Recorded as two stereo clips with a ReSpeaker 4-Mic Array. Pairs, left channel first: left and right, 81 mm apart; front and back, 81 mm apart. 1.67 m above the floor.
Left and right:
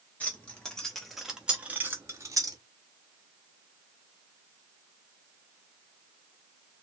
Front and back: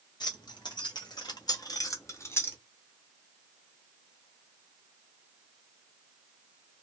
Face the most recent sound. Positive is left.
turn(degrees=-60)